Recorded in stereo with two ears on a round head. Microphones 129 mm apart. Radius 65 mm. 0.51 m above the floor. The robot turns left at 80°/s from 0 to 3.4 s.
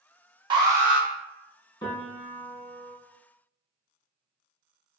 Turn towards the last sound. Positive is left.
turn(degrees=-100)